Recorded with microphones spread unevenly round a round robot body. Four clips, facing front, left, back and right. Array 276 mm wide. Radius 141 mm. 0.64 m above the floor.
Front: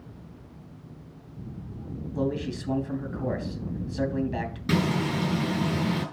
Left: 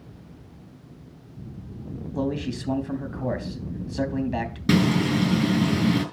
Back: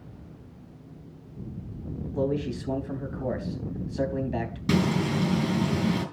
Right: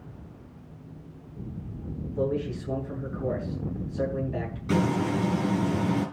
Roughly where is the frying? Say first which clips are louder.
Left 4 dB, back 1 dB; left.